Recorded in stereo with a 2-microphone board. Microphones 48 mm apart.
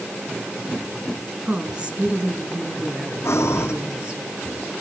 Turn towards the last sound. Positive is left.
turn(degrees=65)  # may be behind; listen again after turning